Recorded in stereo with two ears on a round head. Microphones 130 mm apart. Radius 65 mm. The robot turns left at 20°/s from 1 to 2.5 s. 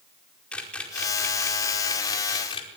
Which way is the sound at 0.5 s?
10° left (ahead or behind).